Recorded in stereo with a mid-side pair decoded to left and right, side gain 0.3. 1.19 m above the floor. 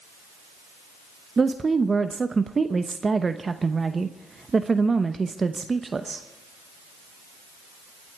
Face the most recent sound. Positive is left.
turn(degrees=-45)